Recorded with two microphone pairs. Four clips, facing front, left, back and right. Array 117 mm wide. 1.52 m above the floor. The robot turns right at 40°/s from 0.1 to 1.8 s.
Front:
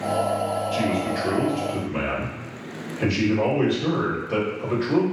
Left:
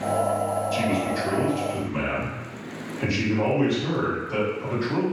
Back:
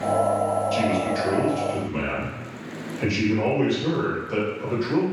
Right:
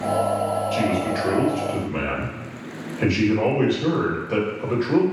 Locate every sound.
0.7 s a man speaking: 120° right, 2 m; by 5.0 s 75° right, 2 m